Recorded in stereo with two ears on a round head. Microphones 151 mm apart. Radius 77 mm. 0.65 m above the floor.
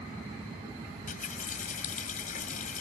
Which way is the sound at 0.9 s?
50° left (ahead or behind).